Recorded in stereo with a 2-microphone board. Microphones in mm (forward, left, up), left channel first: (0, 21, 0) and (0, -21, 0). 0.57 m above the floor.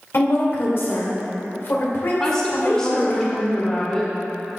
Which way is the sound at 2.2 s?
15° left (ahead or behind).